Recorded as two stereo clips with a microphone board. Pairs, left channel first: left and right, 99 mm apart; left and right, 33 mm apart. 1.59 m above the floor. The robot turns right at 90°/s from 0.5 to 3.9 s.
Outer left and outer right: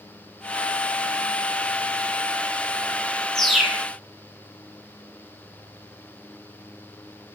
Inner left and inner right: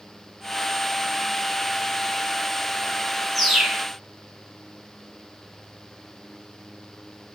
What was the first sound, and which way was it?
A bird, 5° left (ahead or behind).